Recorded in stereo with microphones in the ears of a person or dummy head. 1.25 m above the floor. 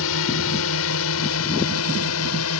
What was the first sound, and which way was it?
A drone, 75° left (ahead or behind).